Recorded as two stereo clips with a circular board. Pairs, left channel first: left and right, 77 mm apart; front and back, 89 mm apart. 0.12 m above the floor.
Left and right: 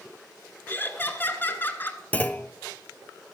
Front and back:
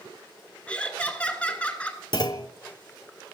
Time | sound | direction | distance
0.7 | laughter | 60° left | 1.2 m
2.1 | a clunk | 25° left | 0.5 m